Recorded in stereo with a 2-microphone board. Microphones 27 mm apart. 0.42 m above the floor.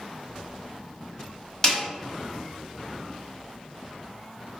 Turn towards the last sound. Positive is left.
turn(degrees=20)  # may be behind; listen again after turning